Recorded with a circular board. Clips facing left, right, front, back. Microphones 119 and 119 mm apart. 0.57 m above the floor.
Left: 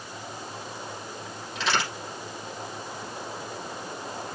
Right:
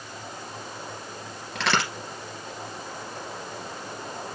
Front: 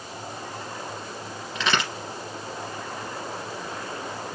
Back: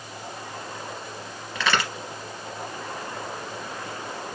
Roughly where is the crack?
Right.